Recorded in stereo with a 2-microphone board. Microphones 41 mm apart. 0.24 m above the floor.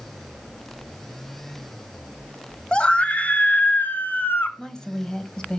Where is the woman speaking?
15° left (ahead or behind), 1.1 m.